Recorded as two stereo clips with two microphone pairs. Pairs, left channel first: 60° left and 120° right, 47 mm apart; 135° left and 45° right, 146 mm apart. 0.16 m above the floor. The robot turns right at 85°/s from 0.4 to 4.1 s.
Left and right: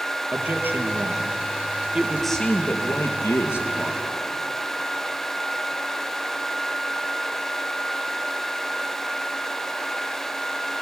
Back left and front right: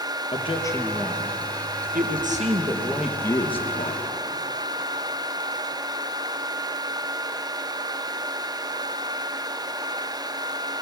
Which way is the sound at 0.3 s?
175° left.